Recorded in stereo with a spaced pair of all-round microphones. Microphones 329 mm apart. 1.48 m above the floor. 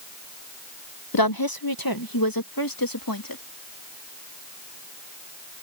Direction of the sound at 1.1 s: 80° left.